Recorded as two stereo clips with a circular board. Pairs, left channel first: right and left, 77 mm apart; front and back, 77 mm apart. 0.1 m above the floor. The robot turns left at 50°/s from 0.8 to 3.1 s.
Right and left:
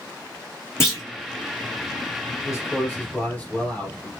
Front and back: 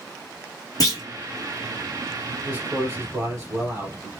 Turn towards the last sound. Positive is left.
turn(degrees=-155)